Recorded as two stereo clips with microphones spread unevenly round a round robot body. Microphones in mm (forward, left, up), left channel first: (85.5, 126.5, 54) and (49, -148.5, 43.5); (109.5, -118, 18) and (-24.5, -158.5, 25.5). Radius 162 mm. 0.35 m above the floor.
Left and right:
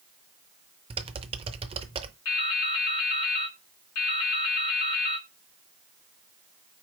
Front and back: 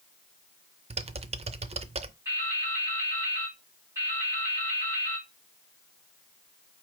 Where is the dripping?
115° left, 2 m.